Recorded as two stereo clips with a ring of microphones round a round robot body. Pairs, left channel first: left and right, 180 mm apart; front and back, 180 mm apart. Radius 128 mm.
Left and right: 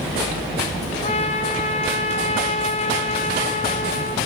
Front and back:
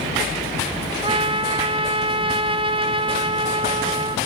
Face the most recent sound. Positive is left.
turn(degrees=130)